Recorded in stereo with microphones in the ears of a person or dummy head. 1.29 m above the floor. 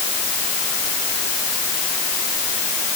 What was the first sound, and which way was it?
Only background noise.